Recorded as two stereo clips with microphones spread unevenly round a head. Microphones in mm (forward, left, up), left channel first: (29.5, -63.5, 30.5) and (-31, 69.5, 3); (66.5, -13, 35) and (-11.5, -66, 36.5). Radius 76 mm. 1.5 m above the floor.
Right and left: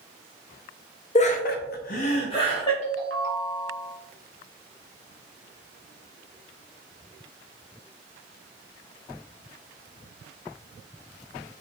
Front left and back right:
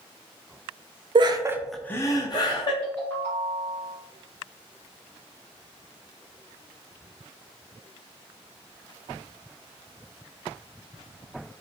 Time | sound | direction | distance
1.1 | laughter | 115° right | 0.7 m
2.8 | a ringtone | 105° left | 1.8 m